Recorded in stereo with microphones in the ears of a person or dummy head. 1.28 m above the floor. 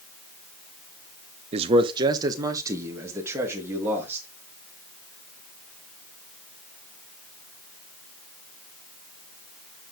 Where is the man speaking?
35° right (ahead or behind), 0.6 m; by 4.3 s 10° right (ahead or behind), 2 m.